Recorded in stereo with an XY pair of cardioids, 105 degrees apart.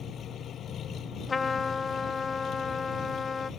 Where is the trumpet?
30° left.